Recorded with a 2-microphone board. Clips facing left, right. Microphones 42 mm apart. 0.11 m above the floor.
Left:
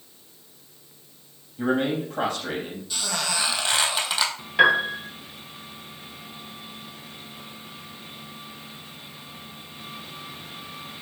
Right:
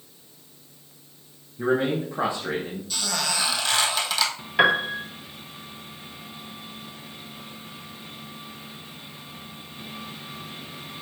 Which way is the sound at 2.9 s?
10° left (ahead or behind).